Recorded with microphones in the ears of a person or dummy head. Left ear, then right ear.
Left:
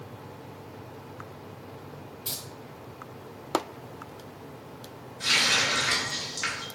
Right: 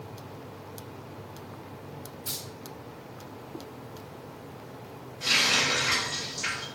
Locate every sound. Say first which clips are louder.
2.2 s keys jangling: left 1 dB; 50° left (ahead or behind), 1.4 m
5.2 s a running tap: even; 55° left (ahead or behind), 1.1 m